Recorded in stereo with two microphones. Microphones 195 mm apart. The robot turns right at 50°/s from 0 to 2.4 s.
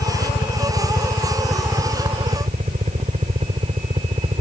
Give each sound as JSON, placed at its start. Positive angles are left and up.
{"t": 0.0, "sound": "a helicopter", "side_deg": 70}